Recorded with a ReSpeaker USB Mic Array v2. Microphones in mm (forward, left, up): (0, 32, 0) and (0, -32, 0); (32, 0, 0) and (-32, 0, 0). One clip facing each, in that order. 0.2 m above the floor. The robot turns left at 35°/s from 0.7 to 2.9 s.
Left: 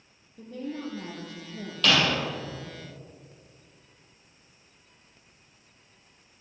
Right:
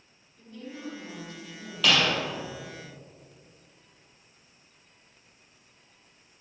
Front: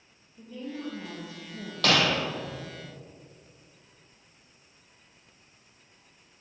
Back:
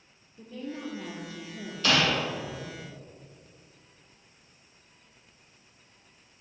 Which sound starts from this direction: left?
A woman speaking, at 0.4 s.